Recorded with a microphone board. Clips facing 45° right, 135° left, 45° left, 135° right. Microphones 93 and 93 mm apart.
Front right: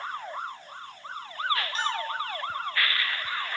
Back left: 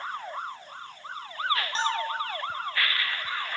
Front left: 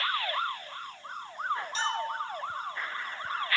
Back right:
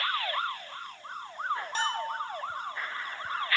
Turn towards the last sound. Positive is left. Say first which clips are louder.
# back left 2 dB, even
turn(degrees=-165)